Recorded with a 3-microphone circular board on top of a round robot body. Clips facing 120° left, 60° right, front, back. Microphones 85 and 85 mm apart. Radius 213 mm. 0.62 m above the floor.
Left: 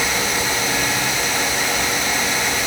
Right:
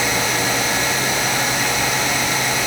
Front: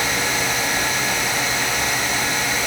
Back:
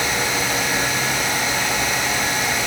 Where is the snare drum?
I don't hear a snare drum.